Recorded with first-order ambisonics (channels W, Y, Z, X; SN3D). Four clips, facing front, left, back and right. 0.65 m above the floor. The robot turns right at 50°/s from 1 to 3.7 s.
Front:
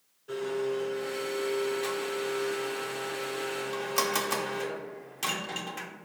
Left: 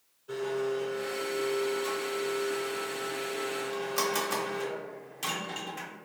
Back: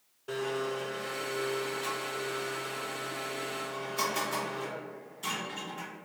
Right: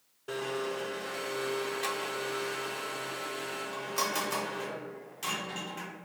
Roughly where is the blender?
Behind right.